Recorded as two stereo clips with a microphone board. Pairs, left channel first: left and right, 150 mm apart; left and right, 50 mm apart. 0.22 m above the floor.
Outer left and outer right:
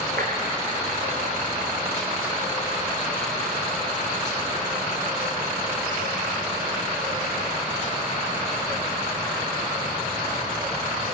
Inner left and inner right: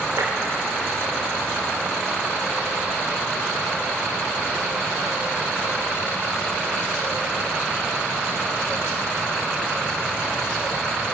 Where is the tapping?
80° right, 5 m.